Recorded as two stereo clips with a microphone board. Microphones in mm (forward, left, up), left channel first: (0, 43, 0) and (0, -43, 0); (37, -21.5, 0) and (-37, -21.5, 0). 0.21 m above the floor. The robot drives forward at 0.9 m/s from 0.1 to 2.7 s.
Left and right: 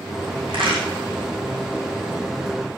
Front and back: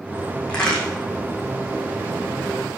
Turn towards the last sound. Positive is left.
turn(degrees=-90)